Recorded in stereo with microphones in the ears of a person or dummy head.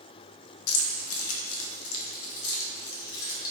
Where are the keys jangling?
80° left, 0.9 m.